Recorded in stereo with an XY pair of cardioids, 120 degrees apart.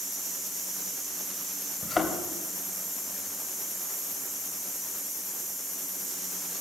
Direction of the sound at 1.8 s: 30° left.